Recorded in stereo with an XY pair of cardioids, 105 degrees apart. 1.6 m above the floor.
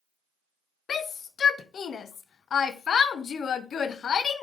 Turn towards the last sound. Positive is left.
turn(degrees=55)